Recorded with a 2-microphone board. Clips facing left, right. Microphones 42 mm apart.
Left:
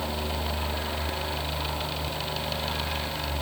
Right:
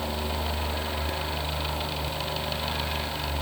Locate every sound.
Only background noise.